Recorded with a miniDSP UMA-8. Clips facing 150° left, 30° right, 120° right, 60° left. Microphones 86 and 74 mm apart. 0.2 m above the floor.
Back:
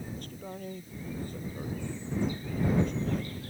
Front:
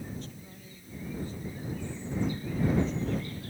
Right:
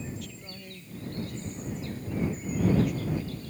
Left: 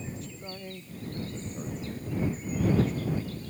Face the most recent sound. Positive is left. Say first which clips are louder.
# back 3 dB, left 1 dB
turn(degrees=120)